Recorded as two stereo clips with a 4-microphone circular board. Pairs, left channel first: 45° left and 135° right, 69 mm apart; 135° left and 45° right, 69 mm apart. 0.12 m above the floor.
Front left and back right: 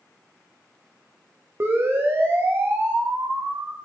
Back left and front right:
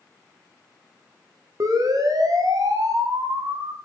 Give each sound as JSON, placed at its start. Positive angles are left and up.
{"t": 1.6, "sound": "a siren", "azimuth_deg": -80, "distance_m": 7.5}